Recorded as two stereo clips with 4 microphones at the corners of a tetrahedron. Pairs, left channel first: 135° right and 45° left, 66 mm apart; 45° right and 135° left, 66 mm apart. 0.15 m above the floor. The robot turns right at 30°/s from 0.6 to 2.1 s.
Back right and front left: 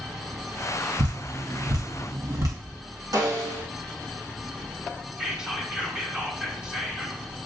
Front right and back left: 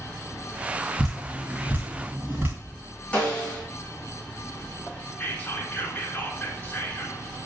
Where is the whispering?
20° right, 1.5 m.